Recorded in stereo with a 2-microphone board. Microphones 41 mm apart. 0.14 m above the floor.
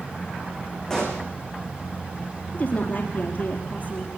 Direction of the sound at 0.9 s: 15° left (ahead or behind).